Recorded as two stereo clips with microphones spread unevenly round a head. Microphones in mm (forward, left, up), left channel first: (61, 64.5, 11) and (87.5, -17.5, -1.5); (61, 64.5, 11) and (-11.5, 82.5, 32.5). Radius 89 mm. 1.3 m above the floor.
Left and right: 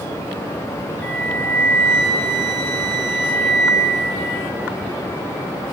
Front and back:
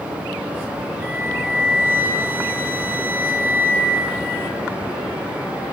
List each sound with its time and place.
1.0 s a flute: 160° left, 0.9 m